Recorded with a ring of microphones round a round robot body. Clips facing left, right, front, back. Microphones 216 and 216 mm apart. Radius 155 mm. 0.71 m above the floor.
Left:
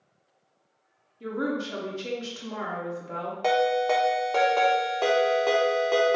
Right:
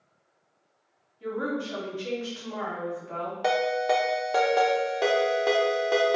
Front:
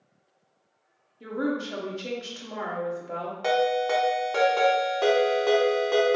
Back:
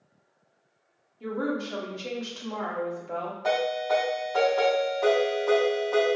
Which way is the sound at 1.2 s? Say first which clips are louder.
Left 1 dB, front 1 dB; 70° left.